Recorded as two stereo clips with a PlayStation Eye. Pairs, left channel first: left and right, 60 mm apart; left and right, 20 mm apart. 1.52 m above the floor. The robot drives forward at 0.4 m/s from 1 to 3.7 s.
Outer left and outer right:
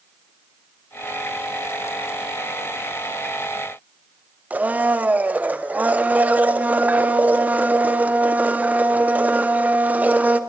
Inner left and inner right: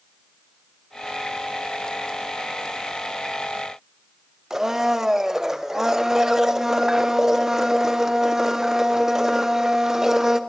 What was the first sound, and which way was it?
A blender, 25° right (ahead or behind).